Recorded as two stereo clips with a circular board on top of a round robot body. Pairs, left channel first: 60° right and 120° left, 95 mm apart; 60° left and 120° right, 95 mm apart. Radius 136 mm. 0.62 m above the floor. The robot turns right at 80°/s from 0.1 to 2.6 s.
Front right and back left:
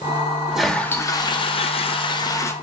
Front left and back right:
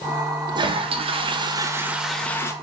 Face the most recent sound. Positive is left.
turn(degrees=10)